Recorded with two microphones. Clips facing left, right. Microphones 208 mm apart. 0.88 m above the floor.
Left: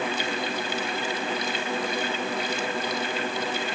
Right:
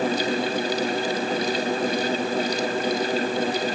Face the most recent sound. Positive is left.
No sound to turn to.